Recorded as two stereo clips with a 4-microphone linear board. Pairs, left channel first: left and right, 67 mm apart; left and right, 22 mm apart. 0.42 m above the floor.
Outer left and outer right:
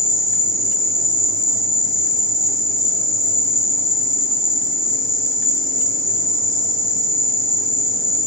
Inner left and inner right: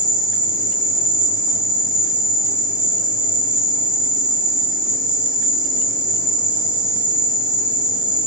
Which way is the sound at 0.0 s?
55° right (ahead or behind).